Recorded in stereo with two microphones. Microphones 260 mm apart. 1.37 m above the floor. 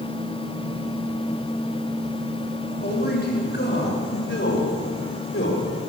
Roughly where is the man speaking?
Left.